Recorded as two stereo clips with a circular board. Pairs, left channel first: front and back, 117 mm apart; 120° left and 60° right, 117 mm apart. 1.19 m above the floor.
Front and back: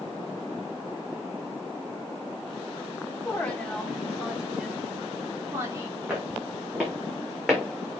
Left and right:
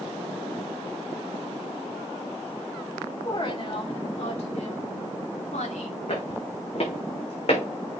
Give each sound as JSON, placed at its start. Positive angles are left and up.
{"t": 3.2, "sound": "a woman speaking", "azimuth_deg": 80, "distance_m": 2.5}
{"t": 6.1, "sound": "footsteps", "azimuth_deg": 105, "distance_m": 4.0}